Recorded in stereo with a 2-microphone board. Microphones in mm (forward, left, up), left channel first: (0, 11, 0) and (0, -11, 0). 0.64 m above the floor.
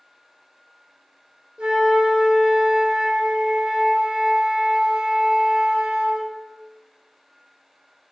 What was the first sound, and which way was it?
A flute, 80° right.